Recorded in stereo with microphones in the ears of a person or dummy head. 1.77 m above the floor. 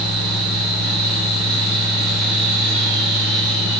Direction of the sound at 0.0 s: 65° right (ahead or behind).